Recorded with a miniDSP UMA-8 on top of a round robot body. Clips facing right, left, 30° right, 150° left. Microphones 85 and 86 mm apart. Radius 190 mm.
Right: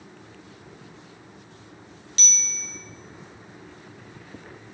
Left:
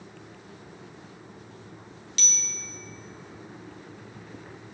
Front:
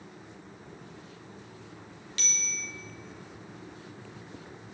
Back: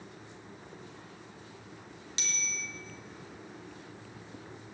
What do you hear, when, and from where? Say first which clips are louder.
2.2 s a bicycle bell: right 2 dB, even; 145° right, 3 m